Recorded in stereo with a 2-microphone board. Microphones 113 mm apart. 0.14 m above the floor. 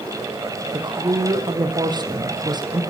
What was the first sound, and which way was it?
A woman speaking, 40° right (ahead or behind).